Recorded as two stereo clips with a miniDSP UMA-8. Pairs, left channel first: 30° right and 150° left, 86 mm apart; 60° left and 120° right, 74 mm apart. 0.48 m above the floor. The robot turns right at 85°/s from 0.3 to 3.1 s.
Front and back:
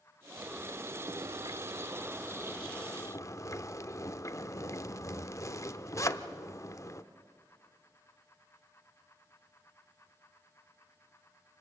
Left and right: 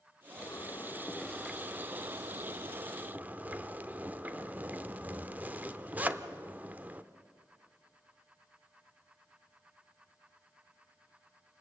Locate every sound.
0.4 s a zipper: 65° left, 0.7 m; by 7.0 s 60° right, 0.7 m